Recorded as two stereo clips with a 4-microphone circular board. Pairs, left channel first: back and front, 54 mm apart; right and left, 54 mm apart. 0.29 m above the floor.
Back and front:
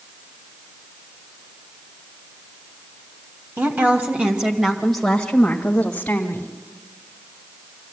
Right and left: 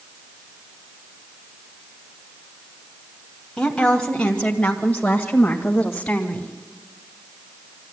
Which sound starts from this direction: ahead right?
A woman speaking, at 3.6 s.